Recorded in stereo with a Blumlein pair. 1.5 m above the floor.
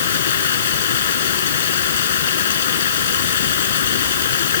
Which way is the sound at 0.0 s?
60° left.